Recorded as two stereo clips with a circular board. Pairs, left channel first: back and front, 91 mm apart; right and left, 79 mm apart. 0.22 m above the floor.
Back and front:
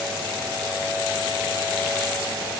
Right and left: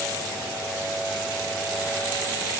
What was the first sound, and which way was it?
Only background noise.